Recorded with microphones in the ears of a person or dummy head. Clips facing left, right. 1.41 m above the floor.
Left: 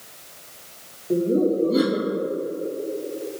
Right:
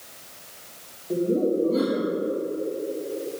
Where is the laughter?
20° left (ahead or behind), 1.7 m.